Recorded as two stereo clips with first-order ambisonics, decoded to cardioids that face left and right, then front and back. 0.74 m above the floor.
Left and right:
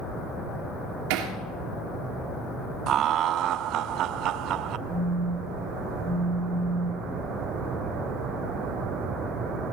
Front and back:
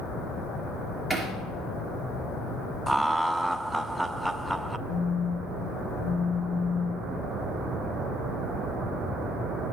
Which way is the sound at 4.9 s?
20° left.